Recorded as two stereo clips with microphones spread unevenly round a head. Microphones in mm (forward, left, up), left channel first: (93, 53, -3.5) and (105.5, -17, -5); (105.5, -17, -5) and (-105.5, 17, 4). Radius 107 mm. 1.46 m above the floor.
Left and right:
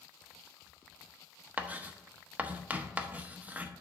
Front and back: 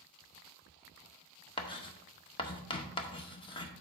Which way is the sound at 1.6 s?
45° right.